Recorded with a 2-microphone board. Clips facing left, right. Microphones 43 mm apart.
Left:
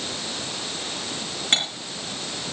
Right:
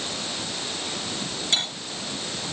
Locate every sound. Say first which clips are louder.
1.5 s cutlery clinking: left 3 dB; 40° left (ahead or behind), 6.5 m